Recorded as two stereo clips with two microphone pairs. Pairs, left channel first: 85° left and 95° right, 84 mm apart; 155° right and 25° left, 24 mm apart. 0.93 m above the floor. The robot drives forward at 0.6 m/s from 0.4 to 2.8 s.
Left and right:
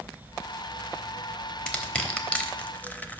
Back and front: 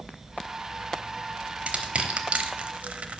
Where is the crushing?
5° left, 1.1 m; by 3.2 s 15° left, 0.5 m.